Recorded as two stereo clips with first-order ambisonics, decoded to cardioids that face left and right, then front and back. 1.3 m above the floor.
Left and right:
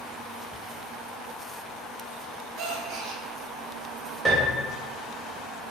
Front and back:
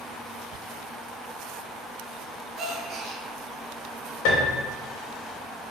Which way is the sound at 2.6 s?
120° right.